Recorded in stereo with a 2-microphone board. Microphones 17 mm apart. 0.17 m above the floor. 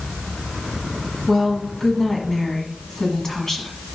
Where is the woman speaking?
20° left (ahead or behind), 1.3 m.